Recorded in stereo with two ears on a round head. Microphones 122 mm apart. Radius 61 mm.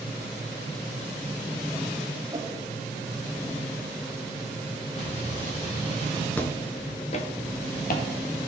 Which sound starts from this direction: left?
An explosion, at 5.0 s.